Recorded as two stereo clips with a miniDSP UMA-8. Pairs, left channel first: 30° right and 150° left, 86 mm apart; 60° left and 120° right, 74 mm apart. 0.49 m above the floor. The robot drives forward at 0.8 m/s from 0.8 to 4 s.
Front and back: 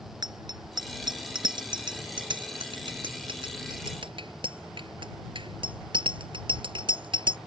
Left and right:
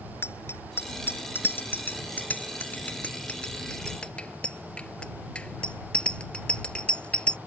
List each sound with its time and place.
0.2 s a bicycle bell: 115° left; by 7.4 s 135° left